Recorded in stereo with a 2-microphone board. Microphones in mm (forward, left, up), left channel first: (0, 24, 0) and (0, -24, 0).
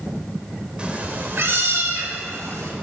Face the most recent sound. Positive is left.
turn(degrees=-85)